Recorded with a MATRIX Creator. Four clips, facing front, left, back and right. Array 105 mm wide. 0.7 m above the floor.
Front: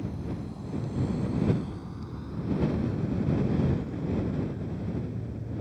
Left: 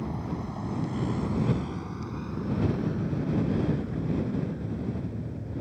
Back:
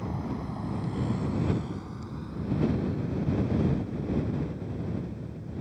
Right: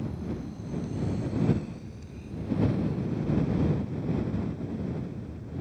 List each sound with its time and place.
0.0 s a vehicle: 135° left; by 5.6 s 65° left